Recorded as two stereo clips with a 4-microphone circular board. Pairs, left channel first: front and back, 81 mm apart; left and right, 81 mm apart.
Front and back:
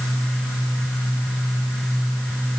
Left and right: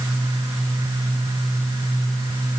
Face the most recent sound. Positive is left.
No sound to turn to.